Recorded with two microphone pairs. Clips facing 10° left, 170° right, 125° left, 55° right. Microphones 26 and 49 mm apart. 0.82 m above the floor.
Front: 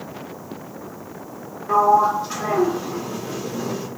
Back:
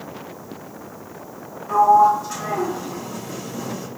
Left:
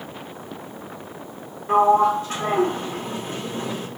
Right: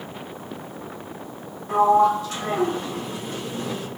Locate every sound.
1.7 s a sliding door: 70° left, 1.0 m